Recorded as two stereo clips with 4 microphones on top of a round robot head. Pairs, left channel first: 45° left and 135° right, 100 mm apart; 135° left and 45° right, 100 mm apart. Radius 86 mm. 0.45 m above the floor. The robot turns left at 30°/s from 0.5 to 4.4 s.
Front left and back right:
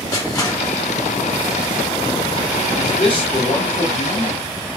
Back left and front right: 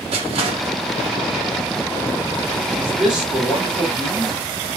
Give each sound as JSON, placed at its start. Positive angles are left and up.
{"t": 0.1, "sound": "crushing", "azimuth_deg": -15, "distance_m": 0.7}
{"t": 2.8, "sound": "a man speaking", "azimuth_deg": 45, "distance_m": 1.5}